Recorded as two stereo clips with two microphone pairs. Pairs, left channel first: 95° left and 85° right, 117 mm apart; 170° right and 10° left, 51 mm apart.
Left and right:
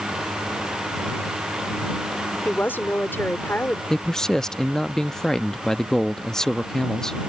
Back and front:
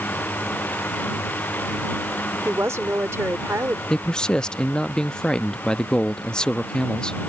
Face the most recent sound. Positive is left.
turn(degrees=160)